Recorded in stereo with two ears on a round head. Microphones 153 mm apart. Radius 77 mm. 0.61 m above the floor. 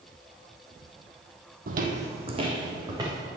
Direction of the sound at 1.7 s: 55° right (ahead or behind).